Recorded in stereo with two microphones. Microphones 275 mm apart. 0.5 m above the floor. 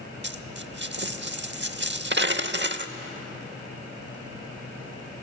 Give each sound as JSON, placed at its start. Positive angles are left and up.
{"t": 0.2, "sound": "a dropped coin", "side_deg": -40, "distance_m": 0.7}